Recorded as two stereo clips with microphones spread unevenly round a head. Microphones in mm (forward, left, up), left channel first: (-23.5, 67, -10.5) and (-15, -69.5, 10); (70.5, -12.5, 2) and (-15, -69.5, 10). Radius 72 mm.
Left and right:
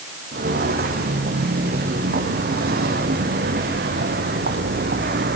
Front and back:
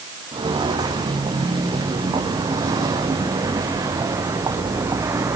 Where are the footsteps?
100° right, 6.5 m; by 5.4 s 85° right, 4 m.